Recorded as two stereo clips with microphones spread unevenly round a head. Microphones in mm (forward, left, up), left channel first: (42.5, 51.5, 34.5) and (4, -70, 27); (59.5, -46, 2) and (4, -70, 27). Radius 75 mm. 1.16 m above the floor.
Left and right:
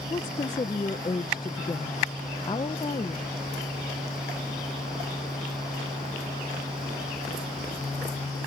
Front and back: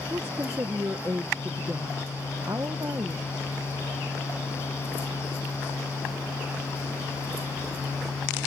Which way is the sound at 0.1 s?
135° left.